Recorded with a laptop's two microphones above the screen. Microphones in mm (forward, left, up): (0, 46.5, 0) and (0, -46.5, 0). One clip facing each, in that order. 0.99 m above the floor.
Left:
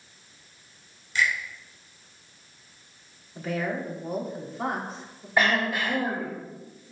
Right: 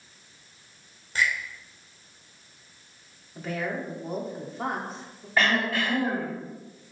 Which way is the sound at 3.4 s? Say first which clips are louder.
Left 2 dB; centre (ahead or behind).